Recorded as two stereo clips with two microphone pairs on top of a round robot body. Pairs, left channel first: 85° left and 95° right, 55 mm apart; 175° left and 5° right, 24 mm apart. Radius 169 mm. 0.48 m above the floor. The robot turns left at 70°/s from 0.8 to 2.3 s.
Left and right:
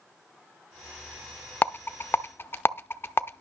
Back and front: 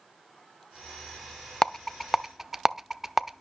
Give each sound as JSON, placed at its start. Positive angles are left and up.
{"t": 1.6, "sound": "a rattle", "azimuth_deg": 125, "distance_m": 0.7}